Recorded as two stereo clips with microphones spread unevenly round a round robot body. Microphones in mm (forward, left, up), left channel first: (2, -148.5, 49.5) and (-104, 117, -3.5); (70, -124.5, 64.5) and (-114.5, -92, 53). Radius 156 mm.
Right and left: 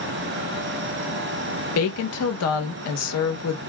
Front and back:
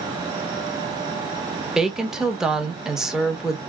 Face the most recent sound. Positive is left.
turn(degrees=-105)